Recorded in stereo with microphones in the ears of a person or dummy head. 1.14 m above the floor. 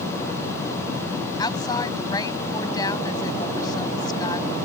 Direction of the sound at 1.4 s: 20° left (ahead or behind).